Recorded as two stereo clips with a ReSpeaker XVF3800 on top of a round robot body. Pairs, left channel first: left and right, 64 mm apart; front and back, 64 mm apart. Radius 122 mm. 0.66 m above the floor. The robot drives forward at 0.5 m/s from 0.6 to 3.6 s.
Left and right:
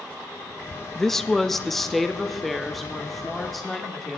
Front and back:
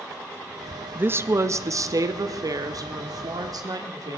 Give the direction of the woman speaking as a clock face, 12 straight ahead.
6 o'clock.